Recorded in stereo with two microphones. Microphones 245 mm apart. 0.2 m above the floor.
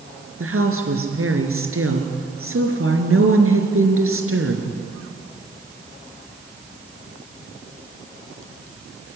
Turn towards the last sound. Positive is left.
turn(degrees=-60)  # may be behind; listen again after turning